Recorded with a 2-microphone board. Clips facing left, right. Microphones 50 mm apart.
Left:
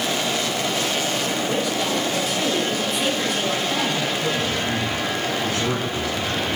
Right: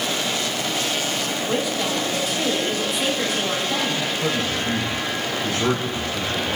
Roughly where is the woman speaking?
Centre.